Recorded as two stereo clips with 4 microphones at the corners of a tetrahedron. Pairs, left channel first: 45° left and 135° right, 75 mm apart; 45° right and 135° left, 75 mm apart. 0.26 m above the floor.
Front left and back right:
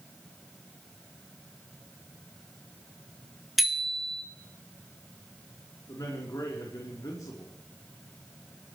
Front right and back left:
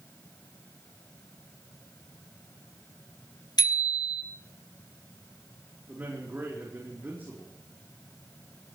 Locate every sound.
3.6 s a bicycle bell: 45° right, 2.5 m
5.9 s a man speaking: 75° left, 4.5 m